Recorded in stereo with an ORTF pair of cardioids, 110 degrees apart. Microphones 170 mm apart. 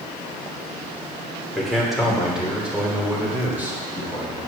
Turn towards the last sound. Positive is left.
turn(degrees=-15)